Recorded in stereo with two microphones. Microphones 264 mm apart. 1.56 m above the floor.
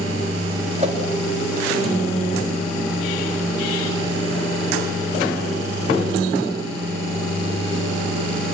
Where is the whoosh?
25° right (ahead or behind), 3.5 m.